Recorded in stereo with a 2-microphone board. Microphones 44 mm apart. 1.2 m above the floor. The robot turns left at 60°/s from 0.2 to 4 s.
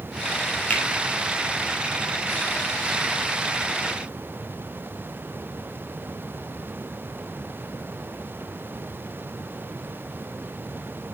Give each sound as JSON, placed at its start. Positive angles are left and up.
{"t": 0.7, "sound": "a finger snap", "side_deg": 30, "distance_m": 2.0}